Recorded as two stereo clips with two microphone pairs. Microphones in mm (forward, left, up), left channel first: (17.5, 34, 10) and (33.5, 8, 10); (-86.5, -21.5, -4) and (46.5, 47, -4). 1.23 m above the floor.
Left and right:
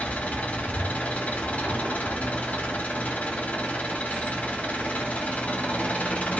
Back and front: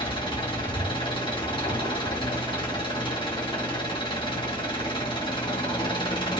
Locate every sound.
0.0 s an engine running: 150° left, 1.9 m